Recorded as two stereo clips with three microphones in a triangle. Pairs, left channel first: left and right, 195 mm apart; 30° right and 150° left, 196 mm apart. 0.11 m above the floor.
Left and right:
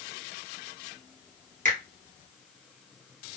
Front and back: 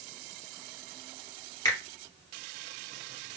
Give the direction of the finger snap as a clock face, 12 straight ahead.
3 o'clock.